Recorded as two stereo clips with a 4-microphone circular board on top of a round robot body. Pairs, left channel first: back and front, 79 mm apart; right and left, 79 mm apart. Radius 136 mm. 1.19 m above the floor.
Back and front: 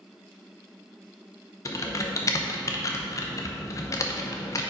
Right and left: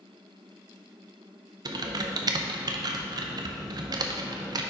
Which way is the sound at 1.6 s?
130° left.